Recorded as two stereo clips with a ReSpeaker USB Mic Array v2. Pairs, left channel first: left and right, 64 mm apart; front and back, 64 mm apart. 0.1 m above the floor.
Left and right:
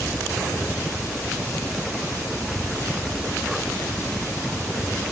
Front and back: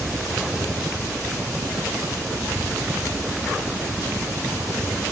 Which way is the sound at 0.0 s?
150° left.